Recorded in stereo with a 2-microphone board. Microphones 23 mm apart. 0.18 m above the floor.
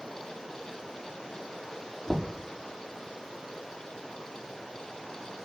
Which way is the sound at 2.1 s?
65° left (ahead or behind).